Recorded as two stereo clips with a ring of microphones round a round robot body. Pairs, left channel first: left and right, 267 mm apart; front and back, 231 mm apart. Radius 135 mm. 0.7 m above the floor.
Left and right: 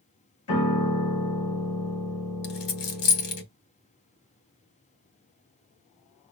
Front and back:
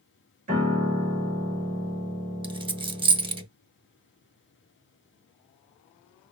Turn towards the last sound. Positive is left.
turn(degrees=110)